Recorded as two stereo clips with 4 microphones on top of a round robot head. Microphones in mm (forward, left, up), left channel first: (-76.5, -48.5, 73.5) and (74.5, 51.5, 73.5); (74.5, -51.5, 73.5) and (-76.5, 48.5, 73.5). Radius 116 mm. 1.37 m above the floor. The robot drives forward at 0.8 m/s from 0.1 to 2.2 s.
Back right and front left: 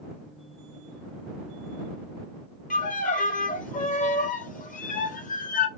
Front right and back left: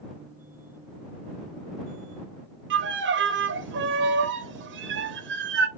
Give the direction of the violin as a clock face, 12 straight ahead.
6 o'clock.